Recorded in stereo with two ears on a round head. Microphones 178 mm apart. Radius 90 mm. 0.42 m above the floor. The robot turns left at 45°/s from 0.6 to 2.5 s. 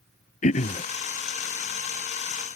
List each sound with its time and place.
0.4 s throat clearing: 35° left (ahead or behind); by 0.8 s 25° left (ahead or behind)